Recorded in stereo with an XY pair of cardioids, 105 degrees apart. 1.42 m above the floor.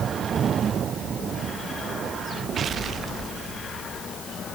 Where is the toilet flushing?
No toilet flushing in this recording.